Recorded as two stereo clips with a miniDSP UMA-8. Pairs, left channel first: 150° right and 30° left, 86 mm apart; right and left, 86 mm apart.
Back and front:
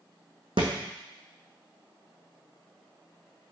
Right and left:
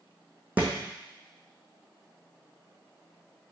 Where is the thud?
20° left, 1.8 m.